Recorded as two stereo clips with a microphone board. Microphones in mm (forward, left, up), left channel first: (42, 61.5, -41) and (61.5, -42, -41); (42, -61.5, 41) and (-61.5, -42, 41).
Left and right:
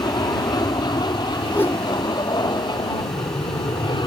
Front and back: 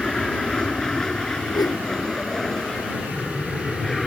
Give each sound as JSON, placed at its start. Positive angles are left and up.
{"t": 0.0, "sound": "an aircraft", "azimuth_deg": 70}
{"t": 1.5, "sound": "a whoosh", "azimuth_deg": 35}